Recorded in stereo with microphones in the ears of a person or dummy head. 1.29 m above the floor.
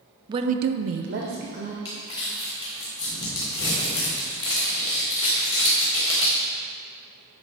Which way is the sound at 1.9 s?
25° left (ahead or behind).